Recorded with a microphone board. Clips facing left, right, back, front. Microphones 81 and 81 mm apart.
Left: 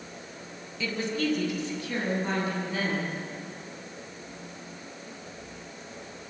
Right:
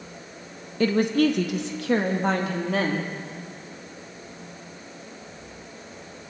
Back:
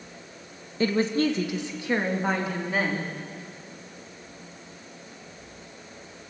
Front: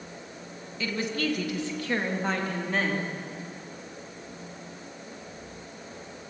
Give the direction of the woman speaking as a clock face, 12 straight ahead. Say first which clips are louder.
Right 9 dB, back 7 dB; 4 o'clock.